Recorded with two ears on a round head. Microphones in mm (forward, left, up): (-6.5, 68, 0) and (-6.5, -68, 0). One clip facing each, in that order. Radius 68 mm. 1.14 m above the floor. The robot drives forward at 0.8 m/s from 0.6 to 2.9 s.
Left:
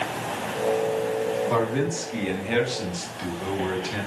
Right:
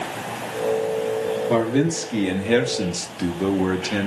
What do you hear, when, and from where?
1.5 s a man speaking: 30° right (ahead or behind), 2 m; by 4.1 s 55° right (ahead or behind), 1.4 m